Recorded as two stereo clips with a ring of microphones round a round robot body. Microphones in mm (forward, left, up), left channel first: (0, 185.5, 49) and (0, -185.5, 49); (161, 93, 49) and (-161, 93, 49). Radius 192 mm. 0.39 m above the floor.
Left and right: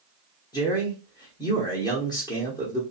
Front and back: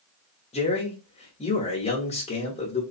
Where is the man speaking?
30° left, 0.9 m.